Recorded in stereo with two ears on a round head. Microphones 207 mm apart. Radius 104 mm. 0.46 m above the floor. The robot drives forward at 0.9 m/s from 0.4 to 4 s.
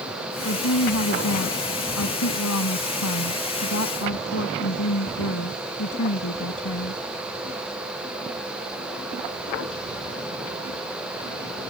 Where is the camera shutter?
I don't hear a camera shutter.